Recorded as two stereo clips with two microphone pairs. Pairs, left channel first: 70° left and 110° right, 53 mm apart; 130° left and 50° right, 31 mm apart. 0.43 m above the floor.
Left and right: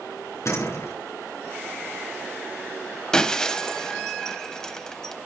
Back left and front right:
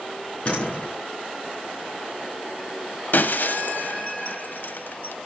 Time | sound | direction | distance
0.5 | a door slam | 90° left | 5 m
3.1 | breaking glass | 145° left | 0.8 m